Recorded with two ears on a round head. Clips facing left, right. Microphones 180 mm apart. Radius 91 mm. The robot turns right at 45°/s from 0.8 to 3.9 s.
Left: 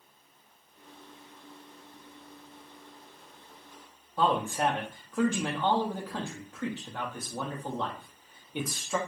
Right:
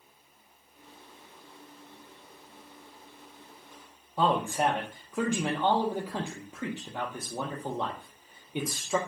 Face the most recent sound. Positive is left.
turn(degrees=-10)  # may be behind; listen again after turning